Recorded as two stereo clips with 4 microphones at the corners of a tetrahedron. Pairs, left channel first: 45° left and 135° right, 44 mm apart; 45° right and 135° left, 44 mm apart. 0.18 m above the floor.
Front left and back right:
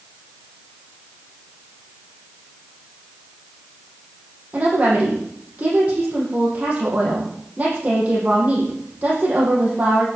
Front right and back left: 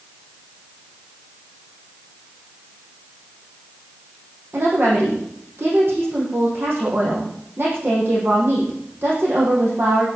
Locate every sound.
4.5 s a woman speaking: 165° left, 9 m